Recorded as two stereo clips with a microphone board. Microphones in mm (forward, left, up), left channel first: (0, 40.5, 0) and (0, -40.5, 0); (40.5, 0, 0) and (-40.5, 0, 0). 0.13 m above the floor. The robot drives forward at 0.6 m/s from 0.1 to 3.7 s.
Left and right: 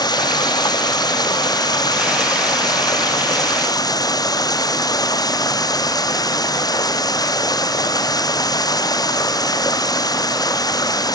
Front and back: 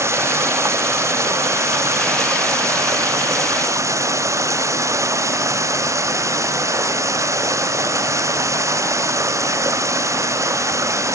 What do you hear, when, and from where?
0.0 s running water: 125° left; by 11.2 s 130° left